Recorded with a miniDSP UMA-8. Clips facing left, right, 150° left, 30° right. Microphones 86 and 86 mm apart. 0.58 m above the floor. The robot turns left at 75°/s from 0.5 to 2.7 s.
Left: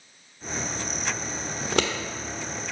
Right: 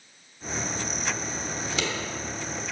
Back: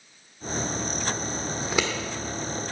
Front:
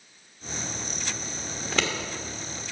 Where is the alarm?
I don't hear an alarm.